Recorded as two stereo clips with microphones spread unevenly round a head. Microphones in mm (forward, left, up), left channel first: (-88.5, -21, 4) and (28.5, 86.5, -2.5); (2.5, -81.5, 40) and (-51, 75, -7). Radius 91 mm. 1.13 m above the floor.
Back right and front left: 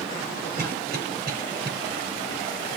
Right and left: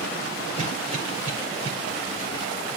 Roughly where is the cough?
Ahead left.